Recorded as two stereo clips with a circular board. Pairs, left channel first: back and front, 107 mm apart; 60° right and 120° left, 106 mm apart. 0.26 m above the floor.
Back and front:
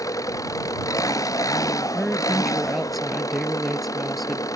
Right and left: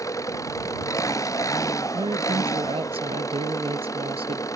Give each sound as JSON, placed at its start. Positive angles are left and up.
{"t": 0.0, "sound": "an engine running", "azimuth_deg": -120}
{"t": 1.9, "sound": "a woman speaking", "azimuth_deg": 90}